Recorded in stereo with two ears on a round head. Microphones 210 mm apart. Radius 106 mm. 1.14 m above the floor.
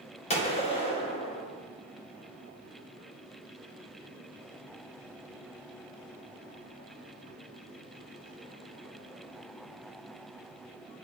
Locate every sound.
0.3 s a gunshot: 30° left (ahead or behind), 0.7 m